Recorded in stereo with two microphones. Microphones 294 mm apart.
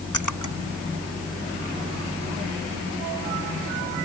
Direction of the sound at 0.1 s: 85° left.